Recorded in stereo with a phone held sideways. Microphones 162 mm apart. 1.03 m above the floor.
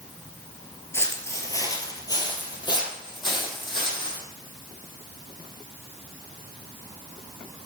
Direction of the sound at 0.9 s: 15° left (ahead or behind).